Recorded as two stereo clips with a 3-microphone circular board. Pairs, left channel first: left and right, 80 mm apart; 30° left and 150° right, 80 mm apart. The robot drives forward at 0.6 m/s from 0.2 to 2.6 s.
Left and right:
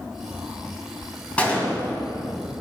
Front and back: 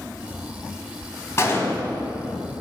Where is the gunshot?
30° left, 1.5 m; by 2.0 s 45° left, 1.4 m.